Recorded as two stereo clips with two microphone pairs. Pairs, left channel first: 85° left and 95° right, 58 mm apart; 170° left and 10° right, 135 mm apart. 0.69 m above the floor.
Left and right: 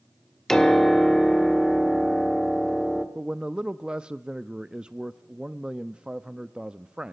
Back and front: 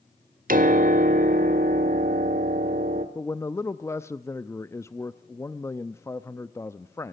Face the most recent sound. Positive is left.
turn(degrees=-155)